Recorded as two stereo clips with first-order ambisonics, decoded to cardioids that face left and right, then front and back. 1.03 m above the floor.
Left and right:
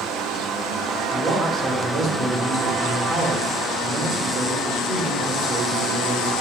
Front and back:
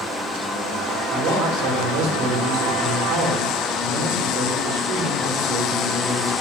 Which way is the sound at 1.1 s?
155° right.